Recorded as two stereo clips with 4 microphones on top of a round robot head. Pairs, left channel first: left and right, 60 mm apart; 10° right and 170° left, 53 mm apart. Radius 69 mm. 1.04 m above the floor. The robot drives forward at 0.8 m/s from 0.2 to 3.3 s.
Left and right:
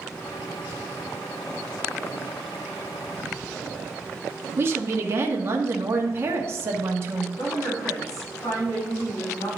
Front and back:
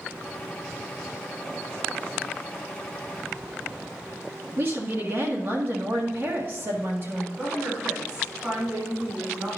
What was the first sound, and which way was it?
A woman speaking, 135° right.